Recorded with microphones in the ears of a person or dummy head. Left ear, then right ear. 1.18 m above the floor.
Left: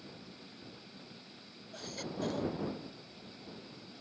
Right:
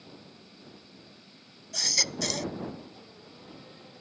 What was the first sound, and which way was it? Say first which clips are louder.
A baby crying: right 16 dB; 65° right (ahead or behind).